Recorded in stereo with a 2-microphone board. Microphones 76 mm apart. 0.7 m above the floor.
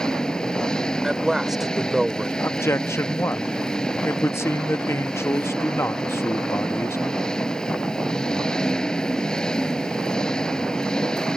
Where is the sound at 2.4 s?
40° left (ahead or behind).